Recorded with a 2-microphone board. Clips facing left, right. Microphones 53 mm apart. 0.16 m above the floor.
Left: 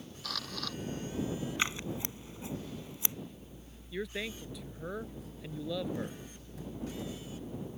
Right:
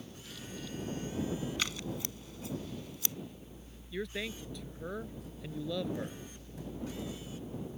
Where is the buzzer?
I don't hear a buzzer.